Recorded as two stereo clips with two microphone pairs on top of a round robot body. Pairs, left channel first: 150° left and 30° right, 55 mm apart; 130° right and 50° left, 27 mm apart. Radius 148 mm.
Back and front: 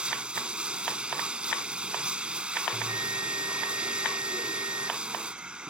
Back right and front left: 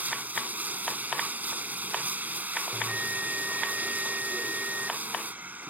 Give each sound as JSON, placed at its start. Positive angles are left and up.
{"t": 0.0, "sound": "running water", "azimuth_deg": 45}
{"t": 2.7, "sound": "a bell", "azimuth_deg": 5}